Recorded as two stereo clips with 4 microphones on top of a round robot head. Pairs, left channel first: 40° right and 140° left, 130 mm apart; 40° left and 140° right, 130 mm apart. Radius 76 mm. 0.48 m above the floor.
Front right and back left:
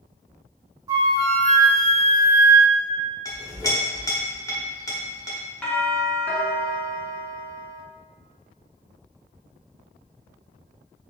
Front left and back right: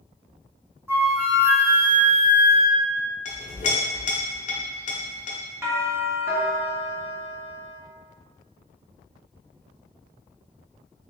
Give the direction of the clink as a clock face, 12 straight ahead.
11 o'clock.